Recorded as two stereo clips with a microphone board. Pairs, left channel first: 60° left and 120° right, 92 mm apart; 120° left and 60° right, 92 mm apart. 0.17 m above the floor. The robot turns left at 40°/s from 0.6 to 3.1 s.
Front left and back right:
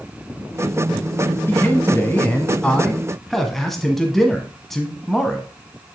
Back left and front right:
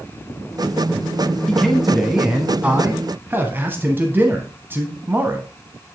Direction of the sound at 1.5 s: 40° left.